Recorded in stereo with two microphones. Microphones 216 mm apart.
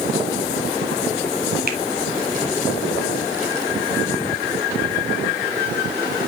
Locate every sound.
1.7 s a finger snap: 45° right (ahead or behind), 2 m